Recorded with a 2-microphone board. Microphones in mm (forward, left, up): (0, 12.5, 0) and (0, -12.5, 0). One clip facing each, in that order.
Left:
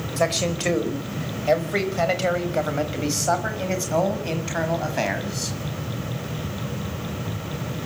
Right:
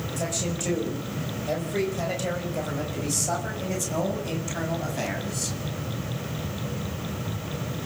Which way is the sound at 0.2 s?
55° left (ahead or behind).